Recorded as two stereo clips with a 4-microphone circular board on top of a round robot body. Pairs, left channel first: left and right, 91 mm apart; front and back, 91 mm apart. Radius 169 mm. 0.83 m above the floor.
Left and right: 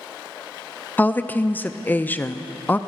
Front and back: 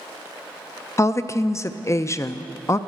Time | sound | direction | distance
1.0 | a woman speaking | 30° left | 0.6 m